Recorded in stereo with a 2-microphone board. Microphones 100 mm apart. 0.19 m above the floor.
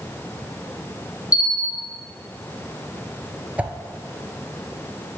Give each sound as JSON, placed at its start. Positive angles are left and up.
{"t": 1.3, "sound": "a bell", "side_deg": 30, "distance_m": 2.5}
{"t": 3.6, "sound": "a whoosh", "side_deg": -15, "distance_m": 0.9}